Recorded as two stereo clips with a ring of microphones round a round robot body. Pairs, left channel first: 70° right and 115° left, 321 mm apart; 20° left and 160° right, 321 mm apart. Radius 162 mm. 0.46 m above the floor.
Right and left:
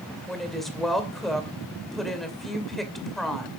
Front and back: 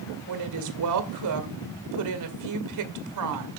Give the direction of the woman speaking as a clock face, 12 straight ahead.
5 o'clock.